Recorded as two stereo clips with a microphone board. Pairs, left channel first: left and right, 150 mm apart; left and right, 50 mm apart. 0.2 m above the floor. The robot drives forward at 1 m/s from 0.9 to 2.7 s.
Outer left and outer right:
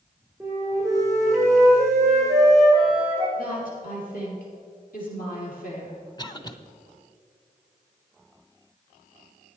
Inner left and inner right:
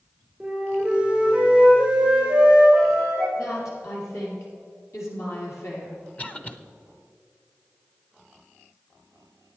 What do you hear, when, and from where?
0.4 s a flute: 15° right (ahead or behind), 3.5 m; by 3.3 s 10° right (ahead or behind), 5 m
3.4 s a woman speaking: 70° left (ahead or behind), 5 m
6.2 s a cough: 25° left (ahead or behind), 1.0 m